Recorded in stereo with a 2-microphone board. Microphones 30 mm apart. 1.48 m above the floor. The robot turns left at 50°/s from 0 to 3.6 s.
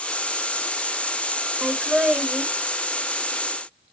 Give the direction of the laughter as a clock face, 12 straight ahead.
3 o'clock.